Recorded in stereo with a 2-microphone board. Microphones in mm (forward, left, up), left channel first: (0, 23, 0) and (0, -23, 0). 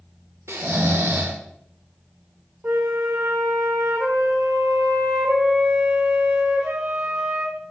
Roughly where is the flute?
Right.